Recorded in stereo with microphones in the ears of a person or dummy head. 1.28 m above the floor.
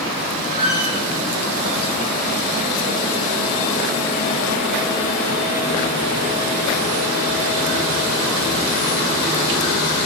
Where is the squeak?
50° right (ahead or behind), 1.7 m.